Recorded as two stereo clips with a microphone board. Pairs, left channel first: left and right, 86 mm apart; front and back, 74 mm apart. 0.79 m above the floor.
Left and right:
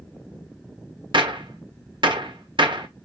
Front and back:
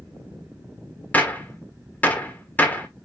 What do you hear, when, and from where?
1.1 s a gunshot: 70° right, 1.5 m